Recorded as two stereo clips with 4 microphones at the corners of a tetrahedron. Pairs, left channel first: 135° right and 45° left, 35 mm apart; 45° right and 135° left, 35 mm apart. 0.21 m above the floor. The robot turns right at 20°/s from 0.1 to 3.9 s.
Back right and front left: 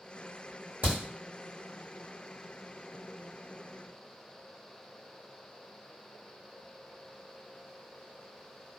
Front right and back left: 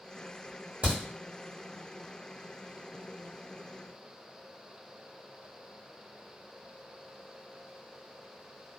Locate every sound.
0.8 s a crack: 80° left, 1.7 m; by 1.0 s 85° left, 1.7 m